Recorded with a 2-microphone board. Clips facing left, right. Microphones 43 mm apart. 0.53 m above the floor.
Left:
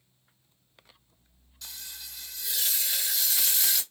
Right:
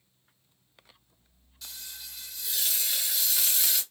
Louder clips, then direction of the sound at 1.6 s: Left 1 dB; centre (ahead or behind).